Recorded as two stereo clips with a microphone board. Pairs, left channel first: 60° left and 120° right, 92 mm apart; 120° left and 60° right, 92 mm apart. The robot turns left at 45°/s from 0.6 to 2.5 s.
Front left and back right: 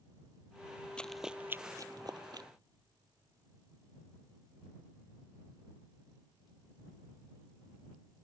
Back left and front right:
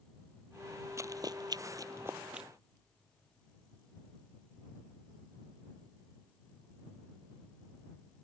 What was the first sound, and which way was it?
Running footsteps, 15° right.